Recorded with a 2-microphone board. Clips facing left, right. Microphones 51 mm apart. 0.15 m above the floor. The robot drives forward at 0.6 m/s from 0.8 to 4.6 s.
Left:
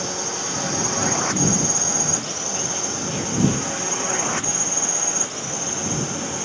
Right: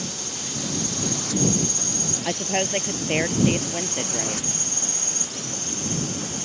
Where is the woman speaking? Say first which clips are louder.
Right 4 dB; 65° right (ahead or behind).